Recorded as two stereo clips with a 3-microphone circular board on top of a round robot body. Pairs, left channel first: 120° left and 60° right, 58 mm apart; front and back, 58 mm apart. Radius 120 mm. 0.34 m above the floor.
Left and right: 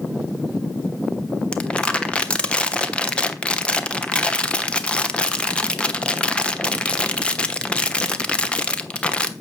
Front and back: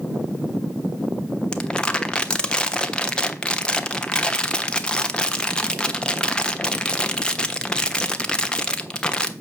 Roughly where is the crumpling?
Ahead left.